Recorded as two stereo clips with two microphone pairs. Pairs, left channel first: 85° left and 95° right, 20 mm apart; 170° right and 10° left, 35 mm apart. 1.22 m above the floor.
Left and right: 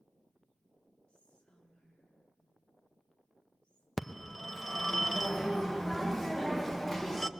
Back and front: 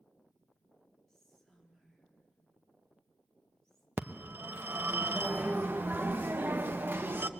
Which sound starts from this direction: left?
Whispering, at 1.1 s.